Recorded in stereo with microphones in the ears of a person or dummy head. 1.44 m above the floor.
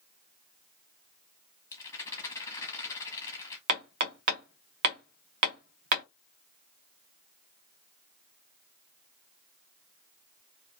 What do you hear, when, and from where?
1.7 s a rattle: 25° left (ahead or behind), 1.4 m
3.7 s hammering: 55° right (ahead or behind), 0.5 m